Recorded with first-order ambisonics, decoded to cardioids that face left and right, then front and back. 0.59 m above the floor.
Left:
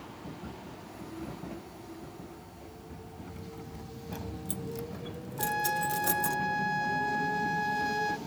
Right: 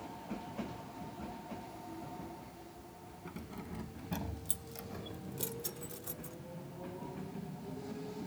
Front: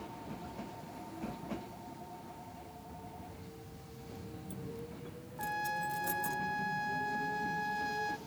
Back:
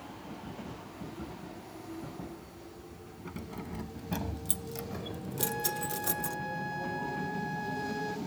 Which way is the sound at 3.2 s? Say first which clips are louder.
Even, back 7 dB; 165° right.